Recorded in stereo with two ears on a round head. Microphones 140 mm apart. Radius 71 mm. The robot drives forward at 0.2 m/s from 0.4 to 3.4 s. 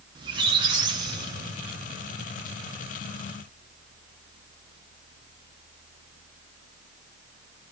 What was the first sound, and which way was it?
A squeak, 30° right (ahead or behind).